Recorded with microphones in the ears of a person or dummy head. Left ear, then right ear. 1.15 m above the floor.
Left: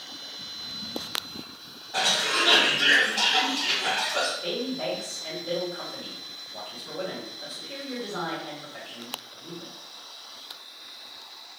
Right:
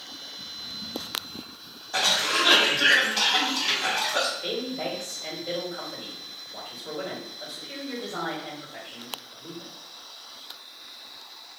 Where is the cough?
65° right (ahead or behind), 1.8 m.